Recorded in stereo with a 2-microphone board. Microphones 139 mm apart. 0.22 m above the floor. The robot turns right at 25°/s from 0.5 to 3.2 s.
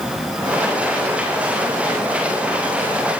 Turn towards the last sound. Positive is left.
No sound to turn to.